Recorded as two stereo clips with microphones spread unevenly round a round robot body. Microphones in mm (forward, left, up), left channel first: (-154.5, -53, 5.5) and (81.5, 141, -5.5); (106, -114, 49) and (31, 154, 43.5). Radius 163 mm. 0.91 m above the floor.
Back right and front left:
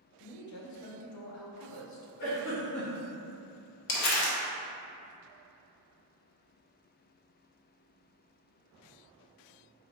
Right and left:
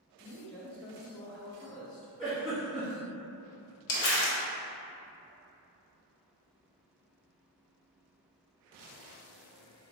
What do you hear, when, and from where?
0.2 s a man speaking: 160° right, 0.7 m
2.2 s a giggle: 170° right, 1.9 m
3.9 s crumpling: 115° right, 0.7 m